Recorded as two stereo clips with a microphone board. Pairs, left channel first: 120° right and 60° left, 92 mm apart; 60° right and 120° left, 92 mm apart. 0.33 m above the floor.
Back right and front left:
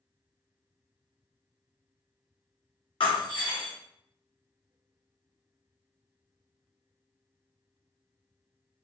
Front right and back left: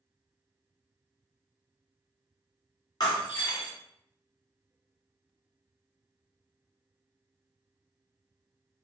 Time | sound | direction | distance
3.0 | breaking glass | 95° right | 2 m